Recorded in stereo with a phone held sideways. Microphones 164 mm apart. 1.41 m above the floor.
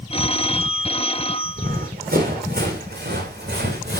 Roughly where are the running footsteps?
Right.